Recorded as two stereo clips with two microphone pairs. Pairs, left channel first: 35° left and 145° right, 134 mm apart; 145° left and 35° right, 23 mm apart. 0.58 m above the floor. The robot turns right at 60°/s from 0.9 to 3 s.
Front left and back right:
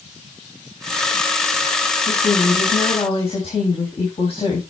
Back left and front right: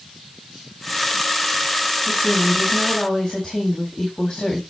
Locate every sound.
2.1 s a woman speaking: 20° left, 3.5 m; by 4.6 s 75° left, 3.5 m